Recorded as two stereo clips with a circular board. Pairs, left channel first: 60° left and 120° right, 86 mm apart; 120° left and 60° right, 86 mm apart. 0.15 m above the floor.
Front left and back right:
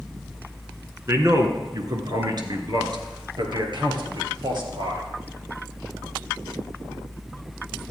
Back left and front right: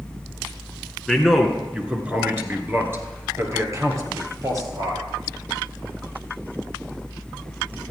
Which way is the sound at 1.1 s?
155° right.